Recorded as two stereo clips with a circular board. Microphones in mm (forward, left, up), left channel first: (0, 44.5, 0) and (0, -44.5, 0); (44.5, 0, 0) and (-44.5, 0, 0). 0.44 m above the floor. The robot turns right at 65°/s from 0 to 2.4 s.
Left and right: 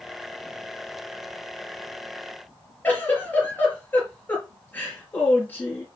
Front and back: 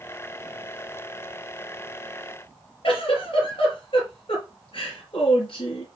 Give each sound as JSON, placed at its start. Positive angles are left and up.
{"t": 2.8, "sound": "a giggle", "azimuth_deg": 15, "distance_m": 4.5}